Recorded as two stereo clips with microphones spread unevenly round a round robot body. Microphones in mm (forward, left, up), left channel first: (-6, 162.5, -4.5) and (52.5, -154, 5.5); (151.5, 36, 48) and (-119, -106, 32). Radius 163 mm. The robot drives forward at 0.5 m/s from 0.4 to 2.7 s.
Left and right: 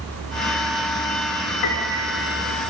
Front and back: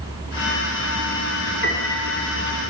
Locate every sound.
1.6 s a piano: 90° left, 5.5 m; by 2.3 s 95° left, 5.5 m